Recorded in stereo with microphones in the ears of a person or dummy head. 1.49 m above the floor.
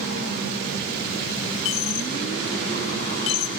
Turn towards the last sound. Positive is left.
turn(degrees=35)  # may be behind; listen again after turning